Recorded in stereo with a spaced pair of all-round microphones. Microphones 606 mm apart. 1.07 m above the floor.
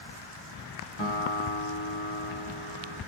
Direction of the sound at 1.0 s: 50° left (ahead or behind).